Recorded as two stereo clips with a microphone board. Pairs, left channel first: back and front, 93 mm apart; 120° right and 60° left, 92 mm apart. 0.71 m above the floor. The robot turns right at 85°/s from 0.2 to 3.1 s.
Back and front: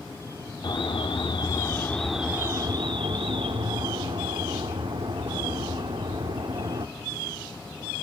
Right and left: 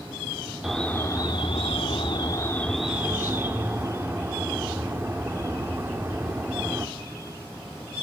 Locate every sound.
0.6 s an alarm: 145° left, 2.0 m; by 6.9 s 5° right, 2.0 m